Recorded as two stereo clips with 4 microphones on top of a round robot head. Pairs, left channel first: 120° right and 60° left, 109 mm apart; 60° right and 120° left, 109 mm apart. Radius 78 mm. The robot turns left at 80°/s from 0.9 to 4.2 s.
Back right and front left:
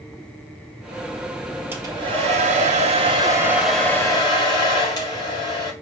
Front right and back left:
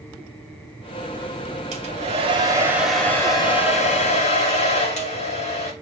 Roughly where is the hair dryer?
Behind left.